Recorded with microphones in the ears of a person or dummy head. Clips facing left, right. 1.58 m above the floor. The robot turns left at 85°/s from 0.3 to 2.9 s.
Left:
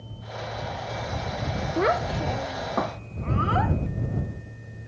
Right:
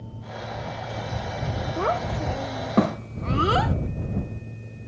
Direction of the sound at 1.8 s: 30° left (ahead or behind).